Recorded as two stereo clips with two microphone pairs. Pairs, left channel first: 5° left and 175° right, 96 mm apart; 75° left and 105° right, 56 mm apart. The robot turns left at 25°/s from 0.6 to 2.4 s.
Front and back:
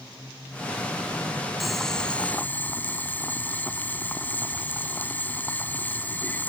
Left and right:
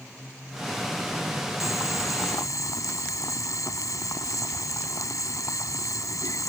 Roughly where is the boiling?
Left.